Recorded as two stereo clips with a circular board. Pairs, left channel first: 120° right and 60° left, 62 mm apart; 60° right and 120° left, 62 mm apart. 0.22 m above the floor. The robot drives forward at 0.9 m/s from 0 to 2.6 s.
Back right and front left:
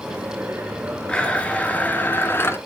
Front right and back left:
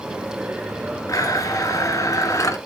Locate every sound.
1.1 s a blender: 45° right, 2.5 m; by 2.6 s 80° right, 1.9 m